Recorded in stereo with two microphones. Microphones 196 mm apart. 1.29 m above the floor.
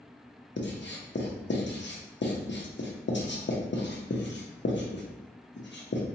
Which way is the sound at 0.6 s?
65° left (ahead or behind).